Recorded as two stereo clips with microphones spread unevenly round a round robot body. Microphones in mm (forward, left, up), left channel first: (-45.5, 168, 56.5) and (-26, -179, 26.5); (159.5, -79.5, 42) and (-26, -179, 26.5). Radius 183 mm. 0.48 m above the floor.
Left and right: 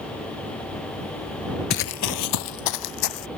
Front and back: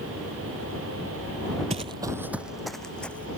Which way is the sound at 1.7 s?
145° left.